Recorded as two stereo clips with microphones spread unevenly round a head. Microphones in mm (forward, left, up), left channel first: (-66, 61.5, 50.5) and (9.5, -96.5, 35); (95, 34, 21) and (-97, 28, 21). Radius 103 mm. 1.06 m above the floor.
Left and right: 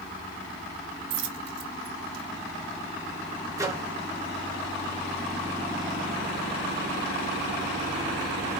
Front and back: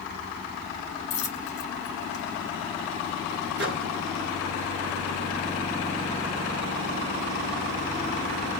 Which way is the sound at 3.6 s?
135° right.